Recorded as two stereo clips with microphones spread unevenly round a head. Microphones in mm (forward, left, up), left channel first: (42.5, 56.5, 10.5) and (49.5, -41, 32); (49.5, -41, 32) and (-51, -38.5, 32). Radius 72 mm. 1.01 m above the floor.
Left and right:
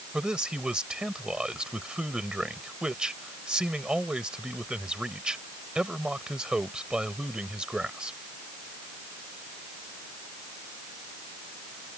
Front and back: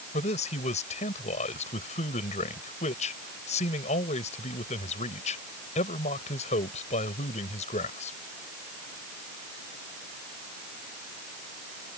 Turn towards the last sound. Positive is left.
turn(degrees=-5)